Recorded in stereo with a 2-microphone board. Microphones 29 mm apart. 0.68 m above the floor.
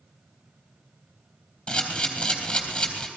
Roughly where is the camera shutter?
Left.